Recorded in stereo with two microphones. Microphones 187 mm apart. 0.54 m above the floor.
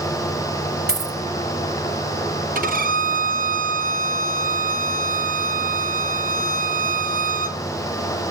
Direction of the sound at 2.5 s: 50° right (ahead or behind).